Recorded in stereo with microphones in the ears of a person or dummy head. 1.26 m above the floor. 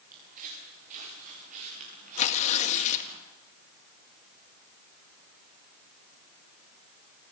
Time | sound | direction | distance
0.1 | footsteps | 50° right (ahead or behind) | 8.5 m
2.2 | tearing paper | 35° left (ahead or behind) | 1.8 m